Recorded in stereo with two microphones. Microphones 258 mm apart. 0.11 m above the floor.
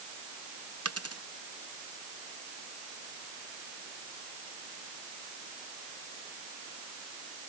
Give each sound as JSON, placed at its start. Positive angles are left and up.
{"t": 0.8, "sound": "a dropped coin", "side_deg": -75}